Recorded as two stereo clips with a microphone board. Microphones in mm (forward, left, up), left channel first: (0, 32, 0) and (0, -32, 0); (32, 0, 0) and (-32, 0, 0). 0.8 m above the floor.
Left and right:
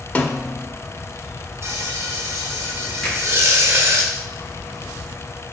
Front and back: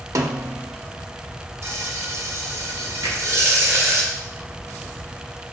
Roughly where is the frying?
Behind right.